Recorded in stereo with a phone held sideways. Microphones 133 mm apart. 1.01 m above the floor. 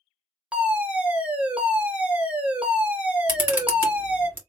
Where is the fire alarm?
10° right (ahead or behind), 1.2 m.